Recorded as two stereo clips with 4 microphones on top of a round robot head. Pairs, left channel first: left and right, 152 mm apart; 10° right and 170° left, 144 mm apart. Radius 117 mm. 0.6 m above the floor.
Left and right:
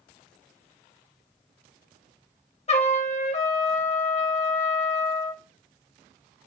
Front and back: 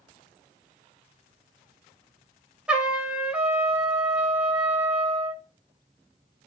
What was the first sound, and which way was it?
A trumpet, 90° left.